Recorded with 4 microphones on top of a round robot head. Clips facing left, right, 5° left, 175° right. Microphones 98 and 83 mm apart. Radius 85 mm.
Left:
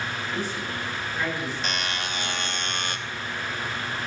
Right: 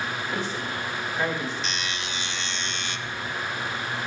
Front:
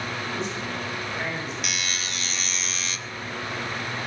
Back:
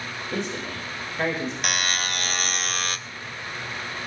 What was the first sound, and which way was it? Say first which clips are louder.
A man speaking: right 1 dB, even; 155° right.